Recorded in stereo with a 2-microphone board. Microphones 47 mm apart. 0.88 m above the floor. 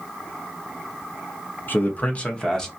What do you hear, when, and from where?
1.7 s a man speaking: 45° left (ahead or behind), 0.7 m; by 2.7 s 10° left (ahead or behind), 0.8 m